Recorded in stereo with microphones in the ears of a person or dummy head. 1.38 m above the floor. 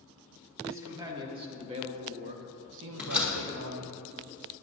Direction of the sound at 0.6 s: 10° right (ahead or behind).